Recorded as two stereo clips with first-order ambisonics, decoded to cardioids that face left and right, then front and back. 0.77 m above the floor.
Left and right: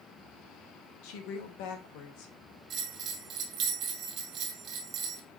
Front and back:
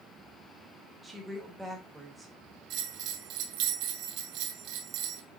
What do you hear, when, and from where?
1.0 s a woman speaking: 100° left, 3 m
2.7 s a bell: 145° right, 2.5 m